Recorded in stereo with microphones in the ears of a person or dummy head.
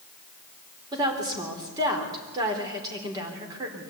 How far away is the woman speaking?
About 4.5 m.